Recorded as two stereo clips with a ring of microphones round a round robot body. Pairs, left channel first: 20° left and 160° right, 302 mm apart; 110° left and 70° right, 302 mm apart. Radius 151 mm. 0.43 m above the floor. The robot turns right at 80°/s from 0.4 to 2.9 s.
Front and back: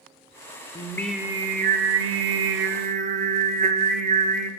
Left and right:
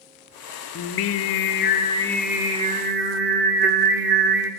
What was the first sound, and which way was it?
Singing, 85° left.